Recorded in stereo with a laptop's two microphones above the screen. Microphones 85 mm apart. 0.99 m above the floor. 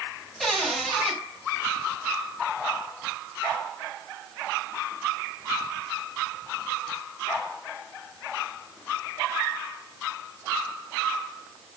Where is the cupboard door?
Centre (ahead or behind), 5 m.